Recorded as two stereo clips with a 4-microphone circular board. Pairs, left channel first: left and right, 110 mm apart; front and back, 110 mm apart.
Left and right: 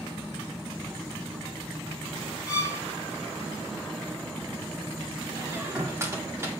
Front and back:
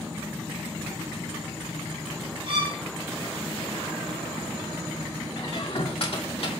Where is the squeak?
25° right, 2 m.